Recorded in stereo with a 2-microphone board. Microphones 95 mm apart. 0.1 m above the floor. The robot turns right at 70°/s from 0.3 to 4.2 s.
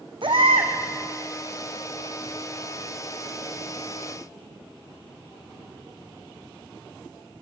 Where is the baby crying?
120° right, 2 m; by 0.7 s 90° right, 2 m.